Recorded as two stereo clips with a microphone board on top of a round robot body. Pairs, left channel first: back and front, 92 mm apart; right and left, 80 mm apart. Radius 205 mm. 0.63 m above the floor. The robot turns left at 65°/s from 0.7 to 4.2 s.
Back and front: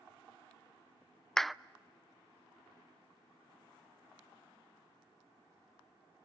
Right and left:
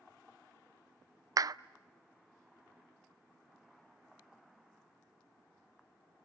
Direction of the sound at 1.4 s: 100° left.